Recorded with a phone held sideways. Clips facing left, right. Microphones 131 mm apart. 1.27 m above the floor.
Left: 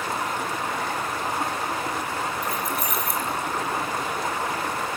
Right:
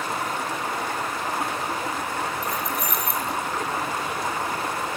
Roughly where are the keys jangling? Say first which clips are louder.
Even; centre.